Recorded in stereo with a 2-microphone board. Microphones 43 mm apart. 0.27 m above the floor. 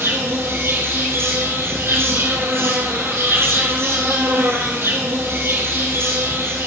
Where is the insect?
65° right (ahead or behind), 1.4 m.